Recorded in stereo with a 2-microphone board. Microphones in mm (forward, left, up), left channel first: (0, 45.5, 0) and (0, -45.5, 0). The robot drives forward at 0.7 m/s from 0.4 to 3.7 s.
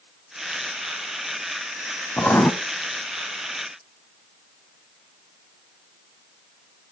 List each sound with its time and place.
2.2 s writing: 25° left (ahead or behind), 0.8 m